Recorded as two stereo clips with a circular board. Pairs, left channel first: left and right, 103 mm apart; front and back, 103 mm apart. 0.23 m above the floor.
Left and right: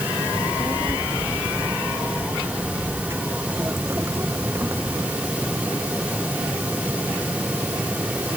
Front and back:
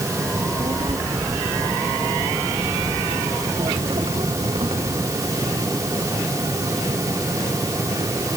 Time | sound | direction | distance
0.3 | a child speaking | 155° right | ?